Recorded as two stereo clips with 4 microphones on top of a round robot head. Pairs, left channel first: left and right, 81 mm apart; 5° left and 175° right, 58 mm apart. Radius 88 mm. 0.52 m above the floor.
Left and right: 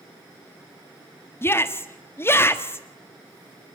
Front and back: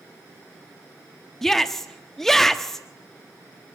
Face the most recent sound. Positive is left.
turn(degrees=85)